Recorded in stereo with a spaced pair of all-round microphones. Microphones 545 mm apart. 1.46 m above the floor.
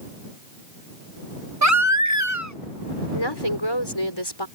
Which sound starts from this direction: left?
A woman speaking, at 3.1 s.